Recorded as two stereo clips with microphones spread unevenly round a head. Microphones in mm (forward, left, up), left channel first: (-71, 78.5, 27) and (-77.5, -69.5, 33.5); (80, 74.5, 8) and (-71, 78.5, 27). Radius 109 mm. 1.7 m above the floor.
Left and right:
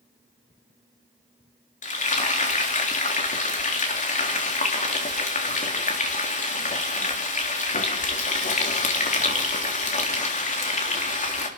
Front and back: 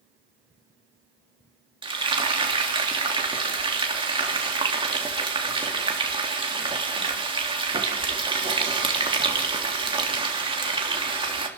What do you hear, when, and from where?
1.8 s frying: 120° left, 3.5 m